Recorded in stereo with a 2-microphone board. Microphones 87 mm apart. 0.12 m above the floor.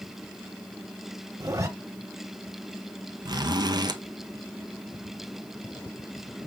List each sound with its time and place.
1.4 s a zipper: 35° right (ahead or behind), 1.3 m
3.2 s a zipper: 55° right (ahead or behind), 1.0 m